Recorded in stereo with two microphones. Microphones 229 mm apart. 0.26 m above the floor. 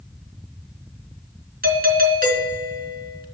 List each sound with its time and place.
1.6 s a doorbell: 40° right (ahead or behind), 3.5 m